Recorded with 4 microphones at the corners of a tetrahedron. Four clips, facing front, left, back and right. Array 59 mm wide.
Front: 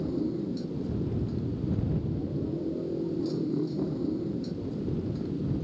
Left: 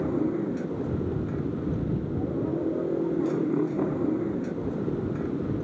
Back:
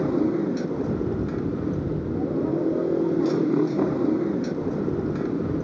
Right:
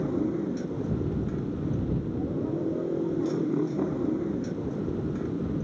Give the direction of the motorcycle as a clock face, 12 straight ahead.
6 o'clock.